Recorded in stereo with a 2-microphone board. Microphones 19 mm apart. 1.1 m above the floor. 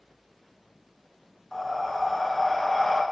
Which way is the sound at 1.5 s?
10° left (ahead or behind).